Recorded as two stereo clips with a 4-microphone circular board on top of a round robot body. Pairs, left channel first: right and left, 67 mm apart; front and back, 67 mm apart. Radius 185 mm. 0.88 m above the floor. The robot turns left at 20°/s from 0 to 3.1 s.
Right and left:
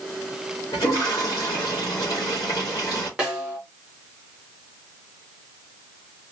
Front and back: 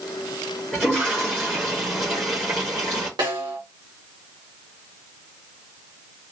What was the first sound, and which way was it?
A toilet flushing, 95° right.